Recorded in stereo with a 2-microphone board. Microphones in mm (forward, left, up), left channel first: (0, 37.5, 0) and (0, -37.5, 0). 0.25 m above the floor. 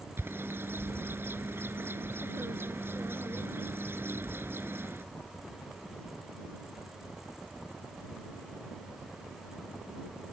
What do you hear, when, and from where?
0.2 s a bird: 30° right (ahead or behind)